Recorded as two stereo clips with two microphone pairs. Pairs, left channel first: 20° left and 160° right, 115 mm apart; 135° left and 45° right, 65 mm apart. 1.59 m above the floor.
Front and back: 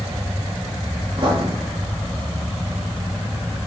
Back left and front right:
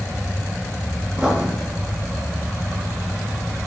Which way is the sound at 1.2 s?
120° right.